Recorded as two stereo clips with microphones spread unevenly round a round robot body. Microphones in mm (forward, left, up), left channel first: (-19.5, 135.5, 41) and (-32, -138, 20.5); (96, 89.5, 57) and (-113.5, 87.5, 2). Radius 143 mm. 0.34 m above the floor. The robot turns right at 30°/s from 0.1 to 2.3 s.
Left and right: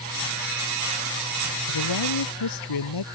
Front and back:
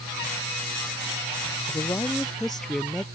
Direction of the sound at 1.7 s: 70° left.